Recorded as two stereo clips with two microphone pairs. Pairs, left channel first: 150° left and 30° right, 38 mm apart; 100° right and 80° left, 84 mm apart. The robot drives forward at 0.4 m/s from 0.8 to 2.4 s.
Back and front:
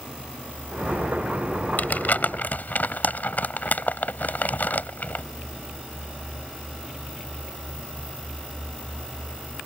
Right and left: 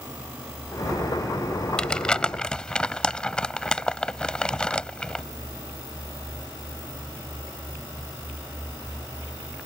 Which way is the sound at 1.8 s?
Straight behind.